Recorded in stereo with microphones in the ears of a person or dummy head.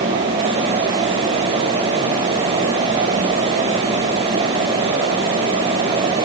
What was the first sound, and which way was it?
Only background noise.